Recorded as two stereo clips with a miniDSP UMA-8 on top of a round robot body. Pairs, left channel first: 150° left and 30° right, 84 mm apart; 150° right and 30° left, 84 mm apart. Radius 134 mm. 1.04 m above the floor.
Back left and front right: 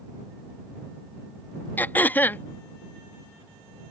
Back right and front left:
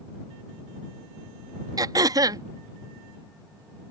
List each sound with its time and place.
1.8 s throat clearing: 80° left